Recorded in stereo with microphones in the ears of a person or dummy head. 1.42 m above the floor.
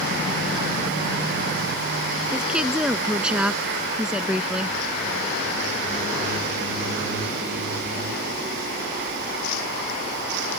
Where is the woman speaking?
5° right (ahead or behind).